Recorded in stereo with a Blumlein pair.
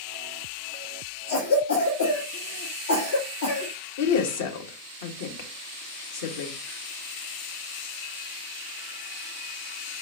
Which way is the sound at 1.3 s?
65° left.